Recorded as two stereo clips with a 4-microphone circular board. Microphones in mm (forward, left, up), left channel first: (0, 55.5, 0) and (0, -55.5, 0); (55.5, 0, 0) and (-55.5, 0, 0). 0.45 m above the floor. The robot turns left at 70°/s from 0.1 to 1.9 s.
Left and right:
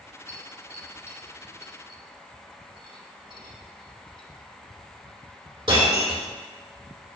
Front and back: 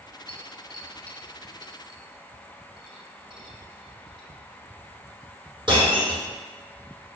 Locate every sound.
0.3 s breaking glass: 25° right, 4 m; by 6.2 s 135° right, 4 m